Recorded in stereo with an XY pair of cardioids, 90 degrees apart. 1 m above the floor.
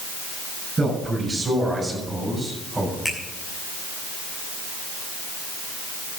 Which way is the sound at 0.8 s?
30° right.